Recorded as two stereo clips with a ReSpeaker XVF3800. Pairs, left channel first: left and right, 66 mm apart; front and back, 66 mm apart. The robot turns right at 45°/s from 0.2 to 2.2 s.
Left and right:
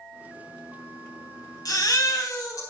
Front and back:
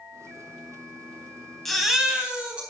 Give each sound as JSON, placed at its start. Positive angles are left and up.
{"t": 1.6, "sound": "a baby crying", "azimuth_deg": 85, "distance_m": 3.5}